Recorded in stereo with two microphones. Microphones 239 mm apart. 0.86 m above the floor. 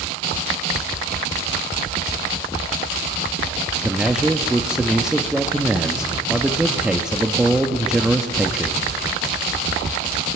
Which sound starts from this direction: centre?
A man speaking, at 3.8 s.